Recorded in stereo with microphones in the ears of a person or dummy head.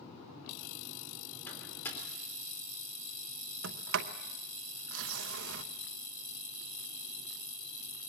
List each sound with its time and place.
1.5 s a microwave: 20° left (ahead or behind), 3.5 m
3.6 s a sliding door: 75° right (ahead or behind), 0.9 m